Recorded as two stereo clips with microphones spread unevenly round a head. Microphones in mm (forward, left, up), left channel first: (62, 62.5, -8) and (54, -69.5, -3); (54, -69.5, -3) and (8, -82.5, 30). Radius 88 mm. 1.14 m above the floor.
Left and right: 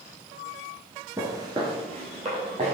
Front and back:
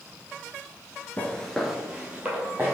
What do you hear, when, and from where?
1.2 s footsteps: 85° right, 1.1 m; by 2.7 s 145° right, 3 m